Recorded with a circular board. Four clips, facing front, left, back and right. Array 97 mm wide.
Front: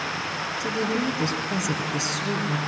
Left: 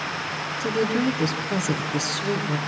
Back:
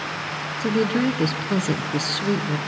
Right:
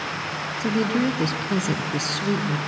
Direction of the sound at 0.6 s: 165° right.